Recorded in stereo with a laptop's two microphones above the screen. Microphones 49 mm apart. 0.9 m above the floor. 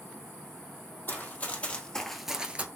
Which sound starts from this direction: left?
Running footsteps, at 1.1 s.